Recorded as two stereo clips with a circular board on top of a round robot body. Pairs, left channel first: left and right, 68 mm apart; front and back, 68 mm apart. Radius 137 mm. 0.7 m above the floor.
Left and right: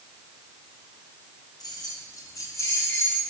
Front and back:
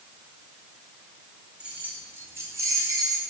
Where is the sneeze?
I don't hear a sneeze.